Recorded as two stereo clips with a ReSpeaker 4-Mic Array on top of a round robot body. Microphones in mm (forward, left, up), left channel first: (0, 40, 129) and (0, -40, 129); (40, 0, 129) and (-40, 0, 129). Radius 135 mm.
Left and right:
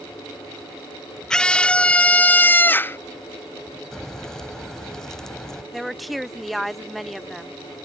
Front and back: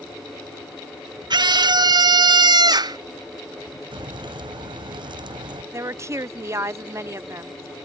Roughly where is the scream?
Behind.